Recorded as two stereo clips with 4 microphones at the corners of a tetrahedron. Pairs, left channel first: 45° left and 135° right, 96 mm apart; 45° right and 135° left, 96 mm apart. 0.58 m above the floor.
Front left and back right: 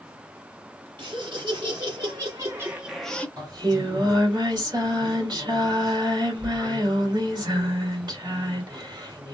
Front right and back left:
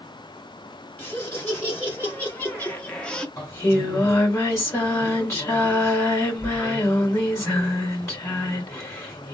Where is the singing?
100° right, 2.5 m.